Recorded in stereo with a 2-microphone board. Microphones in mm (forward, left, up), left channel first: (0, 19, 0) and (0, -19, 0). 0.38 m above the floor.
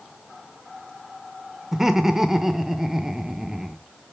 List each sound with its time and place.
1.7 s laughter: 10° right (ahead or behind), 0.8 m